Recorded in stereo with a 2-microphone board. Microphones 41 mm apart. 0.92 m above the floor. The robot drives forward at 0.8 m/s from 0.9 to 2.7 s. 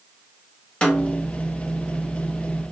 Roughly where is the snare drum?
Left.